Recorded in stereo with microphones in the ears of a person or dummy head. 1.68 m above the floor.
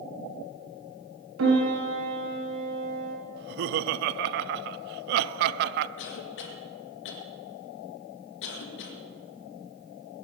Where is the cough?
70° left (ahead or behind), 1.9 m.